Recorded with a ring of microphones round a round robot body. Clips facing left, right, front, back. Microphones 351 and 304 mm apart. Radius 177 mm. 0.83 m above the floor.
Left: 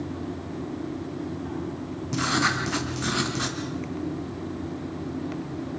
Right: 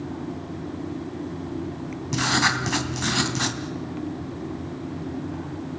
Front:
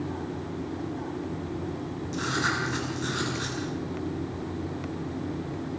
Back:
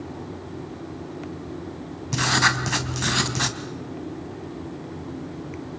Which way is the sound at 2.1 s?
165° right.